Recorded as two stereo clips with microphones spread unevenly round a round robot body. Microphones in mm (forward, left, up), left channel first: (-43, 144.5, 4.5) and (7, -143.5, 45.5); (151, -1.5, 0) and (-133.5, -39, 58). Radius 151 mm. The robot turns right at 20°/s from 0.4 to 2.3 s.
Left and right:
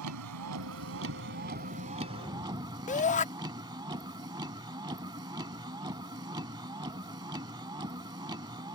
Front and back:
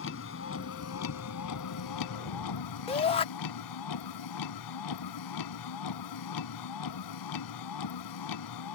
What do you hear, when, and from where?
0.0 s a vehicle: 40° right; by 8.8 s 5° right
2.9 s a shout: 55° left